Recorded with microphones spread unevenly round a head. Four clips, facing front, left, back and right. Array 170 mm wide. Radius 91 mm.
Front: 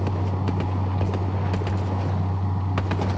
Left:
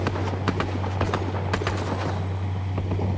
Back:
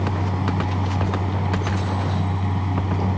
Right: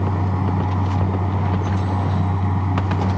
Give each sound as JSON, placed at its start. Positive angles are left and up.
{"t": 0.0, "sound": "a fan", "azimuth_deg": -120}